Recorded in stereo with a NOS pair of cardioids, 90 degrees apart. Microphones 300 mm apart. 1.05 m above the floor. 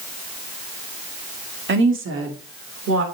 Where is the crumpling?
I don't hear crumpling.